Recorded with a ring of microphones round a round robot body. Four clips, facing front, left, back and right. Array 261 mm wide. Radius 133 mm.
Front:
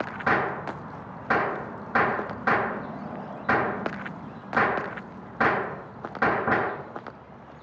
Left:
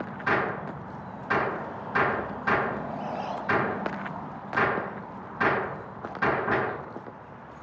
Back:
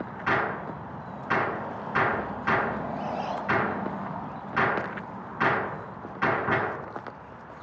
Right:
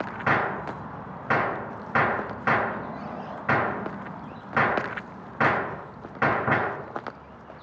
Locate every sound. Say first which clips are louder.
0.3 s a gunshot: right 2 dB, front 2 dB; 45° right, 4 m